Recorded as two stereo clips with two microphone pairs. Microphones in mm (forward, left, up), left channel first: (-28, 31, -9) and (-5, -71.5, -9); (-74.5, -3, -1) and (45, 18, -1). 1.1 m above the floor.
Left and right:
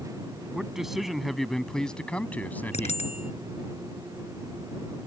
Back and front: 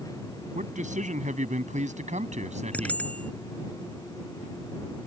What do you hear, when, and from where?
0.5 s a man speaking: 5° left; by 3.0 s 35° left
2.7 s a bicycle bell: 110° left